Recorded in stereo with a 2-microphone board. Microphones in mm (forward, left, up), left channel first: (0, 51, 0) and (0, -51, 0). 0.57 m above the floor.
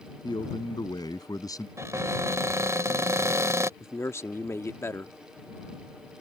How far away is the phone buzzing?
No phone buzzing in this recording.